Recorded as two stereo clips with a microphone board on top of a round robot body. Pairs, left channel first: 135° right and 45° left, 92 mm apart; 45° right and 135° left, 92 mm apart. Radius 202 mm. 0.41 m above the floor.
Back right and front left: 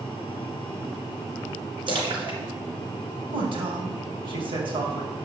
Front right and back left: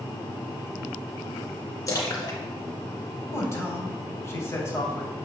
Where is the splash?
10° left, 2.5 m.